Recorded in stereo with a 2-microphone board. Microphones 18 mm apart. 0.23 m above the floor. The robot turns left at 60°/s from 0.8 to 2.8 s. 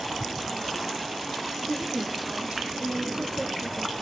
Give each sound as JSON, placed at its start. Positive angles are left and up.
{"t": 1.7, "sound": "a woman speaking", "azimuth_deg": -80, "distance_m": 6.5}